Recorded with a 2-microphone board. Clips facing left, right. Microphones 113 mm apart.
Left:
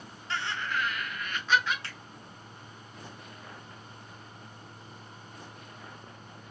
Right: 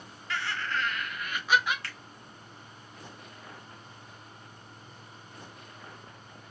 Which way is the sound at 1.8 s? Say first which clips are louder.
Even; 25° left (ahead or behind).